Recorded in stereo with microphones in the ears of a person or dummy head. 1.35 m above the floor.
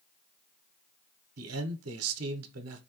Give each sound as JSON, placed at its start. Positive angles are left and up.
{"t": 1.4, "sound": "a man speaking", "side_deg": -75, "distance_m": 0.9}